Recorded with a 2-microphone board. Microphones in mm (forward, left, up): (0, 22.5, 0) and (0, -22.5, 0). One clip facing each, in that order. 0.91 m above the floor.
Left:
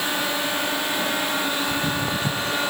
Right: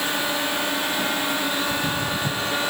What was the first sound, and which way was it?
Footsteps, 20° left (ahead or behind).